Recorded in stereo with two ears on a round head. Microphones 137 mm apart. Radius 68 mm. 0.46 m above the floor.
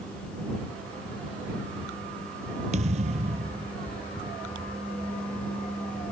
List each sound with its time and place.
2.7 s a thud: 45° right (ahead or behind)